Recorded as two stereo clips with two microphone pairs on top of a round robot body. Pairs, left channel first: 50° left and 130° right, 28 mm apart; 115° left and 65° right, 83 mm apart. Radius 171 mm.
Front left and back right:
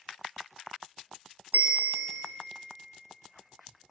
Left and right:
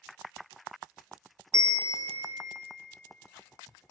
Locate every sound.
1.5 s a bell: 115° right, 0.9 m